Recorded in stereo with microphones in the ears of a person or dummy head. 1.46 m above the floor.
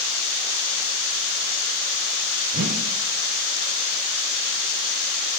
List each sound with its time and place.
2.5 s a whoosh: 45° right (ahead or behind), 0.5 m